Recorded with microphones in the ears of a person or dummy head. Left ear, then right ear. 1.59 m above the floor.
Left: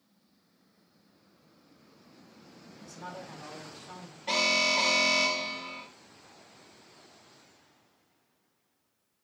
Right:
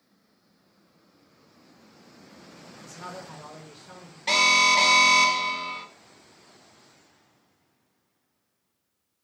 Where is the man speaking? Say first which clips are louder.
Right 3 dB; 35° right (ahead or behind), 1.1 m; by 4.2 s 10° left (ahead or behind), 0.8 m.